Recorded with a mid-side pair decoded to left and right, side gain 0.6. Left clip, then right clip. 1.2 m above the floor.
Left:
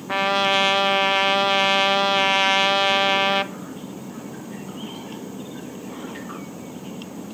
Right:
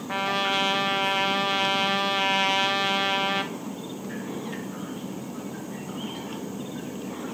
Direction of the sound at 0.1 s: 30° left.